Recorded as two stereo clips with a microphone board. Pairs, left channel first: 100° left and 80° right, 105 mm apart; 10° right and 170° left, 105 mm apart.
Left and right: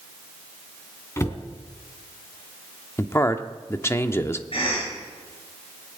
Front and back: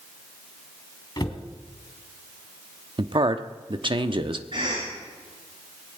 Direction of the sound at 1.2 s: 35° left.